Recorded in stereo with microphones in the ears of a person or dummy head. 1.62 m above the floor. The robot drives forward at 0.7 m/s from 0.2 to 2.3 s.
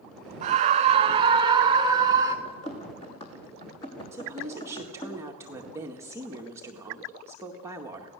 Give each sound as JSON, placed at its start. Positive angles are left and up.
{"t": 0.4, "sound": "a scream", "side_deg": -45, "distance_m": 1.4}
{"t": 2.5, "sound": "running footsteps", "side_deg": 35, "distance_m": 3.0}
{"t": 4.1, "sound": "a woman speaking", "side_deg": -15, "distance_m": 1.8}